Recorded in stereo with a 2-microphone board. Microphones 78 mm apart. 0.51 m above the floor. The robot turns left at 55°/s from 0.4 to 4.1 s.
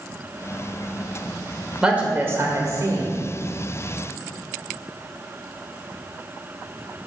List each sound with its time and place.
1.8 s a woman speaking: 10° right, 1.3 m; by 3.1 s 80° right, 1.3 m